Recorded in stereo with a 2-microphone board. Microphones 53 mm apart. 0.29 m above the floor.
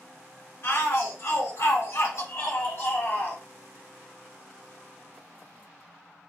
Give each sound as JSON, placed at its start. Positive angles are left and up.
{"t": 0.6, "sound": "a shout", "side_deg": 60, "distance_m": 2.0}